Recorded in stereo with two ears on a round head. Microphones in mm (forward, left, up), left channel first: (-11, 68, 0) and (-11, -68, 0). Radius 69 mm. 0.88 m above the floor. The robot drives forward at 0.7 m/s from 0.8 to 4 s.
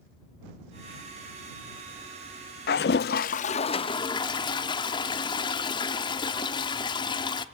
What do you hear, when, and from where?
2.7 s a toilet flushing: 65° left (ahead or behind), 0.5 m; by 7.5 s 30° left (ahead or behind), 0.9 m